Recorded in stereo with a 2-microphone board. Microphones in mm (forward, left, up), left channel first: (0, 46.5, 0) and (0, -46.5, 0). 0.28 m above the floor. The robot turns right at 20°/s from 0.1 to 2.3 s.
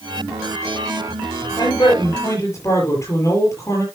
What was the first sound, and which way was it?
A man speaking, 45° left (ahead or behind).